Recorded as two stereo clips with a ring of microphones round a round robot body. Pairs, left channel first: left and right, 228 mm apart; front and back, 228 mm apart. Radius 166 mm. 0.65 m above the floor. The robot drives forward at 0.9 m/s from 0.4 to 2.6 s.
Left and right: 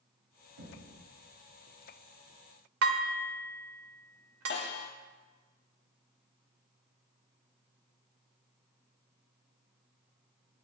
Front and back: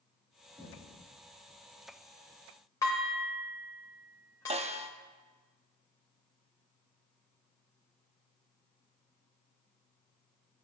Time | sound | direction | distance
0.6 | knocking | 95° right | 4 m
2.8 | dishes clattering | 80° right | 1.4 m
4.5 | a snare drum | 120° left | 0.8 m